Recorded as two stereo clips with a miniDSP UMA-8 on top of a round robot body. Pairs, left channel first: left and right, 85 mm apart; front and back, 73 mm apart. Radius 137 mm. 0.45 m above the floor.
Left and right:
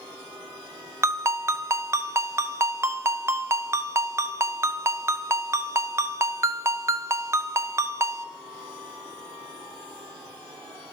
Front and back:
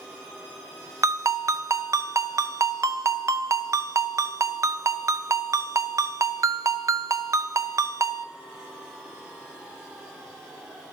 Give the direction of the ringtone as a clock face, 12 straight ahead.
5 o'clock.